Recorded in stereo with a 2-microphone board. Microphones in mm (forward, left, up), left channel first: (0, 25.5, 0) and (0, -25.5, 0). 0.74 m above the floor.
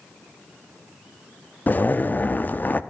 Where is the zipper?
40° left (ahead or behind), 0.7 m.